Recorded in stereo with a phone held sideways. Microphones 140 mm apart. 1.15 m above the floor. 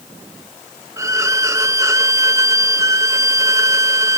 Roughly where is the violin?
Right.